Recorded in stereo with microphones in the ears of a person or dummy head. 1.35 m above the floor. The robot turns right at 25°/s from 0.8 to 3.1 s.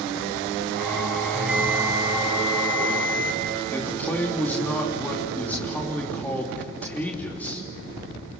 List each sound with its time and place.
1.3 s a bell: straight behind, 2.5 m; by 3.4 s 140° right, 2.5 m
3.7 s a man speaking: 15° left (ahead or behind), 3.5 m